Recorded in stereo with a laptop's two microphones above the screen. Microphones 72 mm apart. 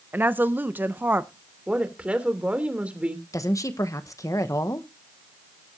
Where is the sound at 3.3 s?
50° left (ahead or behind), 0.8 m.